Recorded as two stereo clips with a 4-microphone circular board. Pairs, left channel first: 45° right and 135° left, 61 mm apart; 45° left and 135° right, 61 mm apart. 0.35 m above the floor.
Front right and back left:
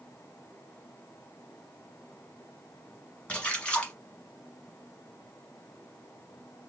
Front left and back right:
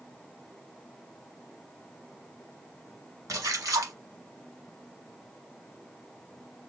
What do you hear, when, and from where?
3.3 s a splash: 115° right, 0.9 m